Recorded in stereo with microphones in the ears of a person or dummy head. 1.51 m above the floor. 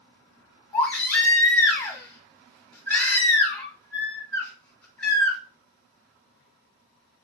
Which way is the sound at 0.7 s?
15° left (ahead or behind).